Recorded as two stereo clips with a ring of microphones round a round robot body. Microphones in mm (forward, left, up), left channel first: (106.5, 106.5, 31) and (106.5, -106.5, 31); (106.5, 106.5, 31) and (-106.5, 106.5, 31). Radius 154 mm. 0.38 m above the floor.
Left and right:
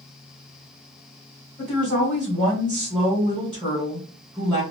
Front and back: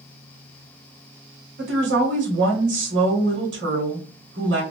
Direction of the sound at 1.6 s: 175° left.